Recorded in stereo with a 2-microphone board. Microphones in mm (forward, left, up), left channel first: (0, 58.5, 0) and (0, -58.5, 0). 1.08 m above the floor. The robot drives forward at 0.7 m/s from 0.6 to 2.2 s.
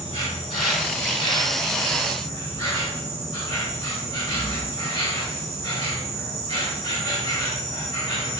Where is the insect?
65° left (ahead or behind), 2 m; by 8.4 s 45° left (ahead or behind), 3 m.